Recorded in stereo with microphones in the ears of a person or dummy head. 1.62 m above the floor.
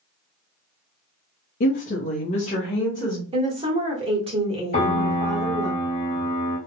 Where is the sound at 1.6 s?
45° left (ahead or behind), 0.6 m; by 3.2 s 20° left (ahead or behind), 1.1 m.